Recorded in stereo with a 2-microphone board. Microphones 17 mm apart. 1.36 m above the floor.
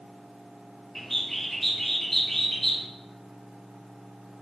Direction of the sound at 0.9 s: 15° left (ahead or behind).